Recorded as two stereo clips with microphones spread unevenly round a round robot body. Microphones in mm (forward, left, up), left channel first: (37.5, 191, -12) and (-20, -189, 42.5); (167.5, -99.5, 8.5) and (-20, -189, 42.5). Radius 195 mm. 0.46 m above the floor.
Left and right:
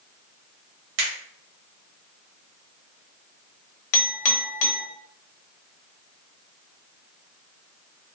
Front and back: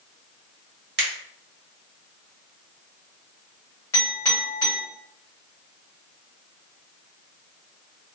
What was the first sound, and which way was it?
A finger snap, 120° right.